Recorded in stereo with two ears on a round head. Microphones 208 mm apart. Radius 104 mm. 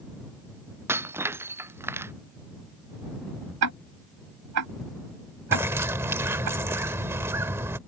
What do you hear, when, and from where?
0.9 s breaking glass: 10° right (ahead or behind)
3.6 s ticking: 80° right
5.5 s a bird: 10° right (ahead or behind)